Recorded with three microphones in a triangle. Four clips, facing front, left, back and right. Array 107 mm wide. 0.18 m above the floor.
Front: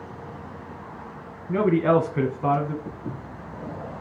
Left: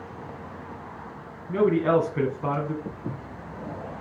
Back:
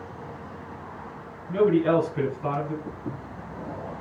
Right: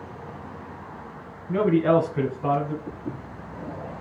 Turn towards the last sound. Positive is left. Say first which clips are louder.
# right 1 dB, even
turn(degrees=75)